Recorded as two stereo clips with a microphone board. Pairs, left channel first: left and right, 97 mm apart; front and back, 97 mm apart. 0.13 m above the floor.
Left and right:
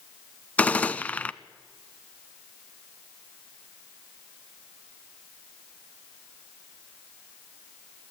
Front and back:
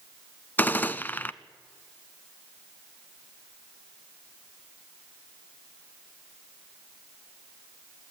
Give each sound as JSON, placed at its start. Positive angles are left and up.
{"t": 0.6, "sound": "a gunshot", "azimuth_deg": 40, "distance_m": 0.5}